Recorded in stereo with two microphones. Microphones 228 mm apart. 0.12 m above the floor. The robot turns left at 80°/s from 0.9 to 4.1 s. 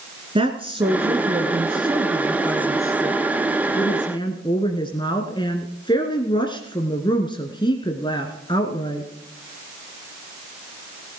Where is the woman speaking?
25° right (ahead or behind), 1.6 m; by 9.1 s 20° left (ahead or behind), 1.6 m.